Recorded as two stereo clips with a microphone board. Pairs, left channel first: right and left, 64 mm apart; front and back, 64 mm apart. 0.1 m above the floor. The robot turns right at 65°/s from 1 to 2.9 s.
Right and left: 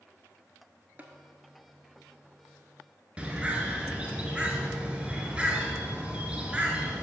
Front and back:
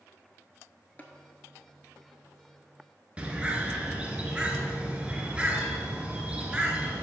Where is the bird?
140° left, 0.9 m.